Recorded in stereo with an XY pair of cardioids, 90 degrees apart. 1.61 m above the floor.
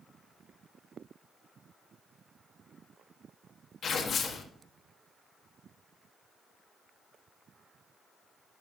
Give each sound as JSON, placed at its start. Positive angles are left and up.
{"t": 3.8, "sound": "tearing paper", "azimuth_deg": 65, "distance_m": 1.6}